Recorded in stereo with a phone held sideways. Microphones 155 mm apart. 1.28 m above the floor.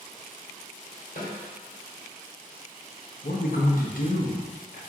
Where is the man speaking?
65° left (ahead or behind), 0.9 m.